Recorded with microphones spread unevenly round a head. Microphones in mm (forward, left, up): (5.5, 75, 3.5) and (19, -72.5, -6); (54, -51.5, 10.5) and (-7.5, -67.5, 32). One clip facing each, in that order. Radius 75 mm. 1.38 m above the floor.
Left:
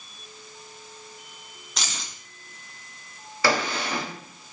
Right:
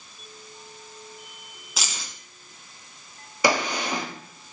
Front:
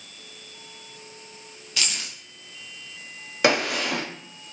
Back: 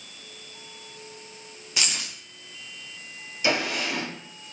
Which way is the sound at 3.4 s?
10° right.